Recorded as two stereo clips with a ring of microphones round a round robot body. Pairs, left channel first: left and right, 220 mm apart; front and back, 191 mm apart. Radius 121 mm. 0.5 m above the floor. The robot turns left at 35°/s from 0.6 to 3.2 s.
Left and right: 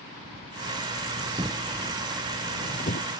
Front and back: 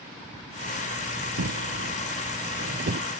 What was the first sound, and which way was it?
A drawer, 160° right.